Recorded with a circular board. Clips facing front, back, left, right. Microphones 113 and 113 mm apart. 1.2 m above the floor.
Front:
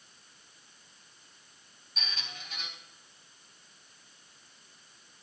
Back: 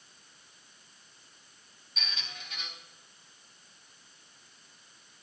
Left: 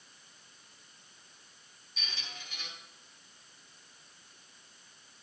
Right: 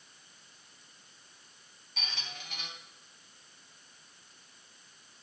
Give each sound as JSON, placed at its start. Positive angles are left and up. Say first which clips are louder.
{"t": 2.0, "sound": "a squeak", "louder": "even, right 2 dB", "azimuth_deg": -85, "distance_m": 3.0}